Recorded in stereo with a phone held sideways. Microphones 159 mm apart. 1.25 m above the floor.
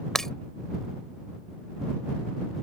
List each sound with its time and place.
0.1 s breaking glass: 5° left (ahead or behind)